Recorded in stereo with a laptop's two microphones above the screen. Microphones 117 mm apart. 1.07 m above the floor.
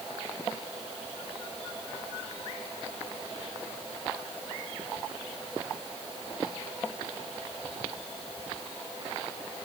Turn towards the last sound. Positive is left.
No sound to turn to.